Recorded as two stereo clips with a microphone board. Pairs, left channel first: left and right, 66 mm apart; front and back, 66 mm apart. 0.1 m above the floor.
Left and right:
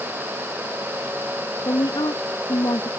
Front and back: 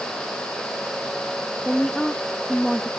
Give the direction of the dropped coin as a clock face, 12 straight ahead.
No dropped coin in this recording.